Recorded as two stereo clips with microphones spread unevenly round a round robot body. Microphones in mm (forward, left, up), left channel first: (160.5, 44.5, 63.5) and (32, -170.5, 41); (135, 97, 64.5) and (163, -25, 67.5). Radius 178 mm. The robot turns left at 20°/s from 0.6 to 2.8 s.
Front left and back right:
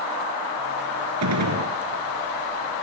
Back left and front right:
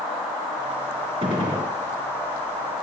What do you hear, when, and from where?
1.2 s a gunshot: 140° right, 3.5 m; by 1.7 s 150° right, 3.5 m